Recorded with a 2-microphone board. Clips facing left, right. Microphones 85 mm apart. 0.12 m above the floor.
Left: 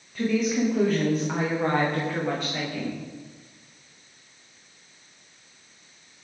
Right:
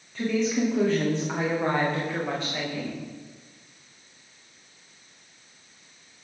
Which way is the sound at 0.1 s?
5° left (ahead or behind).